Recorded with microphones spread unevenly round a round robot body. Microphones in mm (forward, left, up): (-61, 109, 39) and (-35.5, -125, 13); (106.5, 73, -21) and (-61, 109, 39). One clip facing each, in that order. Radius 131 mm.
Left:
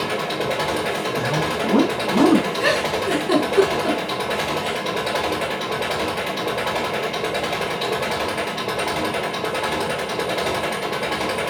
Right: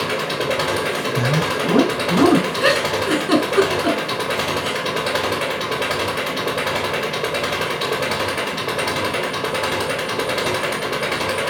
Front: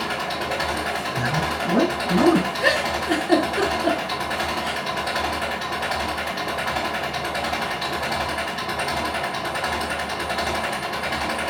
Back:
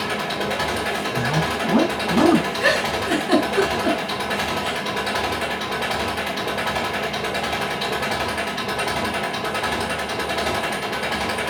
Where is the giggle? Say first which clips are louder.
Right 2 dB, back 1 dB; 155° right, 3.5 m.